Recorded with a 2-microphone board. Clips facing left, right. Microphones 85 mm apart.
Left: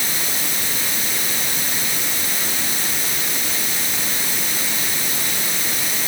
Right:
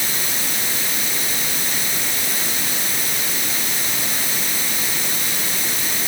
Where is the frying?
I don't hear frying.